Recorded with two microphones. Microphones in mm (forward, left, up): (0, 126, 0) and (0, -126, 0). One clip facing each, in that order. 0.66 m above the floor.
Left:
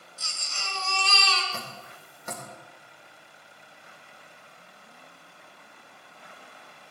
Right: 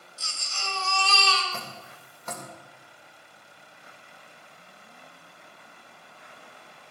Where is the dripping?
15° left (ahead or behind), 3 m.